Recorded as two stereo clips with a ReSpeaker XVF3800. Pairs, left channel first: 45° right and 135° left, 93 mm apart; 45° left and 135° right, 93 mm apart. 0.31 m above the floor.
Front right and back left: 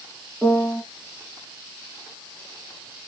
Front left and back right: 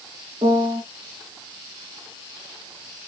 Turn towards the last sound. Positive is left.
turn(degrees=-120)